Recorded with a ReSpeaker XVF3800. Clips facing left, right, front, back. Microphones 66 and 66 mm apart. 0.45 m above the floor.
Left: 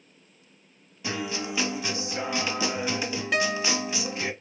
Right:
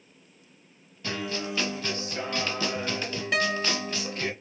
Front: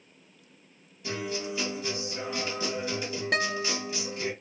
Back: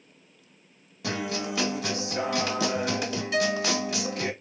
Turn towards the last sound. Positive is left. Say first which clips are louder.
# even, back 4 dB
turn(degrees=5)